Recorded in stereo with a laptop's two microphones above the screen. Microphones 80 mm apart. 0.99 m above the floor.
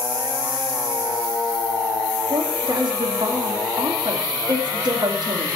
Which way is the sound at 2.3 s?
60° right (ahead or behind).